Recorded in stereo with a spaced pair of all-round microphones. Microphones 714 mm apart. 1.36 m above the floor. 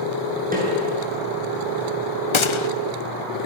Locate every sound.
0.5 s a snare drum: 10° right (ahead or behind), 8.5 m
2.3 s a gunshot: 45° left (ahead or behind), 0.7 m